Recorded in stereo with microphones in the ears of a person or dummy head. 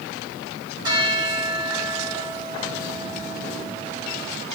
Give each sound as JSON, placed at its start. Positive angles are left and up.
{"t": 0.8, "sound": "a bell", "side_deg": -20, "distance_m": 4.5}